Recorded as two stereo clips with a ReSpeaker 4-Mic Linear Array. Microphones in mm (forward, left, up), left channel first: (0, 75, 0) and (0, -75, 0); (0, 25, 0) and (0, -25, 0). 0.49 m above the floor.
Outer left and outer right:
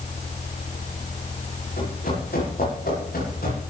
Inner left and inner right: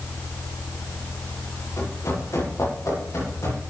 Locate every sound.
1.8 s running footsteps: 85° left, 8.5 m